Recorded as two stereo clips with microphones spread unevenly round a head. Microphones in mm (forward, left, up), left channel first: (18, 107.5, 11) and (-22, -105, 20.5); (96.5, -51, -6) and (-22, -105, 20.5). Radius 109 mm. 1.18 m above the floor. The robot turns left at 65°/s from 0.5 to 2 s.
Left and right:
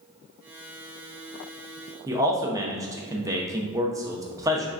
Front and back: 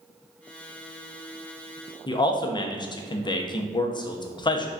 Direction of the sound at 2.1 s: 25° right.